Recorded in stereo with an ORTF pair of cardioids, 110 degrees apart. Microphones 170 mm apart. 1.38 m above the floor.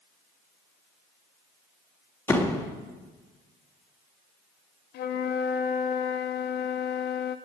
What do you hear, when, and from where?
2.3 s a door slam: 15° left, 1.8 m
4.9 s a flute: 70° left, 1.1 m